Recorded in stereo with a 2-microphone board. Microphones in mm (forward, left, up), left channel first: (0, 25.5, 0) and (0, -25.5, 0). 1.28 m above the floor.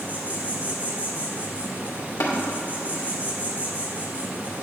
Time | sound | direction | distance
0.0 | an insect | 30° right (ahead or behind) | 1.4 m
2.2 | tapping | 60° left (ahead or behind) | 2 m